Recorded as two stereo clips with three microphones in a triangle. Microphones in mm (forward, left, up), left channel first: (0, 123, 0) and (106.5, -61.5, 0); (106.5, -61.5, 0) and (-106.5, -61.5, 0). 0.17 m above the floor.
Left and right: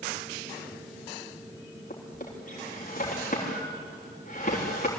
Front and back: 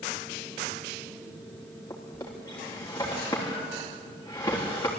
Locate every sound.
1.9 s a drawer: 75° left, 7 m